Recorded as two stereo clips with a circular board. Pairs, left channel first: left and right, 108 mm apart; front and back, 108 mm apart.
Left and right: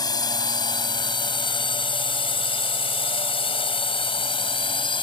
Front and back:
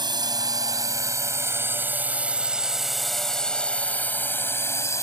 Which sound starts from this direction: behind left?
A drone, at 0.0 s.